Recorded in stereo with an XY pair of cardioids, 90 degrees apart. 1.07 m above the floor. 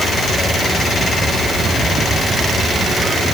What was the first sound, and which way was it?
Only background noise.